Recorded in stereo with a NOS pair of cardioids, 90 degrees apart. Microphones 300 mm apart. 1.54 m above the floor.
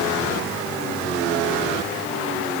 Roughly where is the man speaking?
No man speaking in this recording.